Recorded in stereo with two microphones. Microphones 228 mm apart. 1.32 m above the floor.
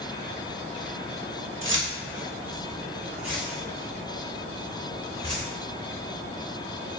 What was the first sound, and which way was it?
Keys jangling, 60° right (ahead or behind).